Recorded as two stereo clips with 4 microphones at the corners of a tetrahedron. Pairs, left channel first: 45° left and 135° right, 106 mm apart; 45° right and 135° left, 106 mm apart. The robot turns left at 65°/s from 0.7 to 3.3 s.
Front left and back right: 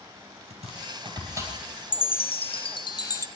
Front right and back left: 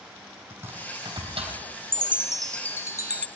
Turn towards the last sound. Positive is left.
turn(degrees=-15)